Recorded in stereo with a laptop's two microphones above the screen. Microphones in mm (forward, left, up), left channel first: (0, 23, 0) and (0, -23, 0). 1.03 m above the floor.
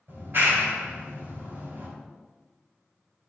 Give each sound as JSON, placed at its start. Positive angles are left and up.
{"t": 0.1, "sound": "a clap", "side_deg": -55, "distance_m": 4.5}